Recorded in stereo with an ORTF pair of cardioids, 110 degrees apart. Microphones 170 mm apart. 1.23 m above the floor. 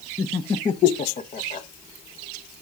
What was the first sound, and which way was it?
Laughter, 10° left.